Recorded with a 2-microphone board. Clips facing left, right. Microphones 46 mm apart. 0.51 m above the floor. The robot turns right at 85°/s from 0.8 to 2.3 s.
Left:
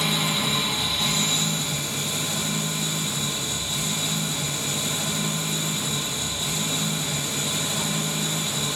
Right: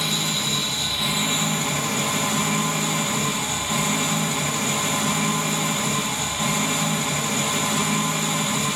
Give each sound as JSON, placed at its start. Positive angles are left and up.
{"t": 0.0, "sound": "an engine running", "azimuth_deg": 170, "distance_m": 0.9}